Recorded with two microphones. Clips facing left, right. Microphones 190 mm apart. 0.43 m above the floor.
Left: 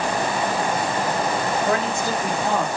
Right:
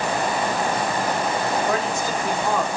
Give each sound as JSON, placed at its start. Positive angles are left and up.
{"t": 1.7, "sound": "a man speaking", "side_deg": 65, "distance_m": 3.0}